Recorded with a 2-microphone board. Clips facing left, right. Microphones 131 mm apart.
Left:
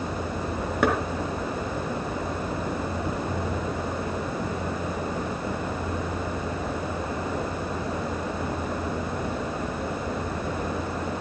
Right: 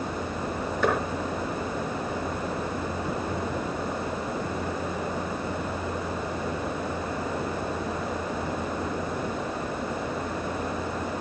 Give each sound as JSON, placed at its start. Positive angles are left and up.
{"t": 0.8, "sound": "knocking", "side_deg": 80, "distance_m": 4.0}